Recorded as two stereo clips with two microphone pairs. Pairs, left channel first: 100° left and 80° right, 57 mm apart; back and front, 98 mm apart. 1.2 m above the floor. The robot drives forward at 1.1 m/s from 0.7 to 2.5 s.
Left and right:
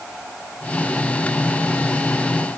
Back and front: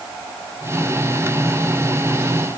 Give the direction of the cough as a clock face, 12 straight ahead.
I don't hear a cough.